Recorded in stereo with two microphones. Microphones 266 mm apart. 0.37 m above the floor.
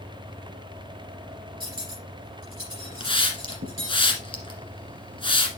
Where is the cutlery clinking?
55° right (ahead or behind), 3.5 m.